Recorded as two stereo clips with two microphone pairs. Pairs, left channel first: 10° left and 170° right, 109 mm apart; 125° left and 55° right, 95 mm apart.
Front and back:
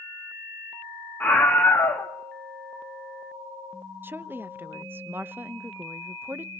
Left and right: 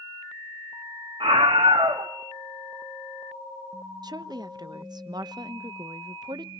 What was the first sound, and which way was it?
A scream, 65° right.